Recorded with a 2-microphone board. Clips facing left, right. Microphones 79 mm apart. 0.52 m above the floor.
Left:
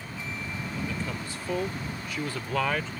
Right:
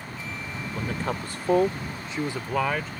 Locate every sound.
0.7 s a man speaking: 55° right (ahead or behind); by 2.9 s 5° right (ahead or behind)